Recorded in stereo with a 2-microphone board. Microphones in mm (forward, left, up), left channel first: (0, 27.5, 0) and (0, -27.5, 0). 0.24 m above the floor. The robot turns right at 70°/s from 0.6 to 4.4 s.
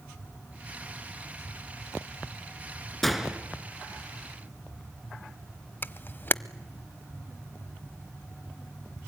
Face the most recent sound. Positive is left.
turn(degrees=35)  # may be behind; listen again after turning